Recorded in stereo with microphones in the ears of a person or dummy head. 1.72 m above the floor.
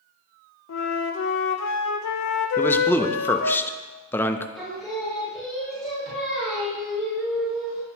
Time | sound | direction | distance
0.7 | a flute | 80° left | 0.6 m
2.6 | a man speaking | 10° left (ahead or behind) | 0.5 m
4.5 | singing | centre (ahead or behind) | 2.5 m